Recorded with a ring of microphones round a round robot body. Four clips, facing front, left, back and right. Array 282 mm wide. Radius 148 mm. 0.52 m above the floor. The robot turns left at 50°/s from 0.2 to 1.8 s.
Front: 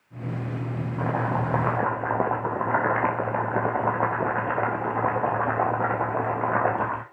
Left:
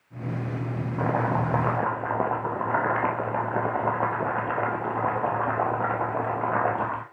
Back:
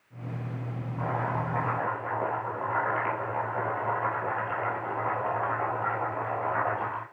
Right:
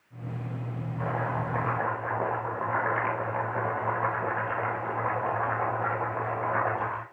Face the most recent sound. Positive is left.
turn(degrees=25)